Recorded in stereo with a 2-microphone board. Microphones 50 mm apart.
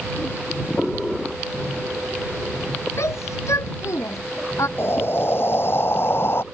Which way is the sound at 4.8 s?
50° left (ahead or behind).